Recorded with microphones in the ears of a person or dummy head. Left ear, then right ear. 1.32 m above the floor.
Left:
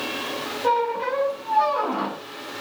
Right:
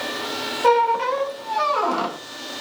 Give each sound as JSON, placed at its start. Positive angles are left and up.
{"t": 0.6, "sound": "a squeak", "side_deg": -60, "distance_m": 0.7}